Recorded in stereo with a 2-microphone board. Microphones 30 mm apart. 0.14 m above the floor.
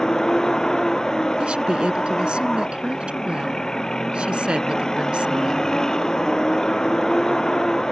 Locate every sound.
0.0 s a vehicle: 20° left (ahead or behind)
1.4 s a woman speaking: 40° right (ahead or behind)